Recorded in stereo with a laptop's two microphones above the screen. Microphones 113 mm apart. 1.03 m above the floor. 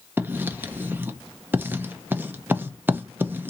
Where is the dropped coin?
No dropped coin in this recording.